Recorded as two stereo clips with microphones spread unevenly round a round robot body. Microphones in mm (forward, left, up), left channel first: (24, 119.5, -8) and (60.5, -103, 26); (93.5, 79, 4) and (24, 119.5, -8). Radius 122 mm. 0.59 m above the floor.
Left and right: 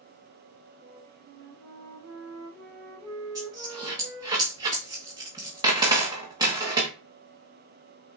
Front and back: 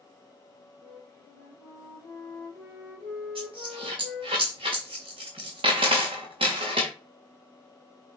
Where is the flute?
150° right, 5.5 m.